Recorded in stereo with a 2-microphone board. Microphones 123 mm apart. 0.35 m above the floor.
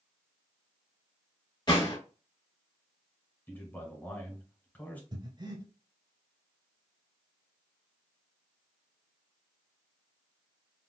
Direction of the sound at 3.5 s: 15° left (ahead or behind).